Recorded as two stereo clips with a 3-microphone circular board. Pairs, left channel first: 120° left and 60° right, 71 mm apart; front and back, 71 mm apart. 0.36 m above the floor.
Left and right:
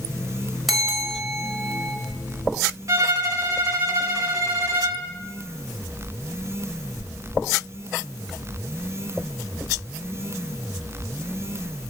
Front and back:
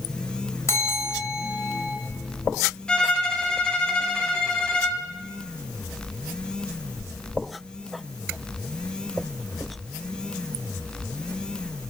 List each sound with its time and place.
0.7 s a bell: 30° left, 1.5 m
2.9 s a violin: 75° right, 0.8 m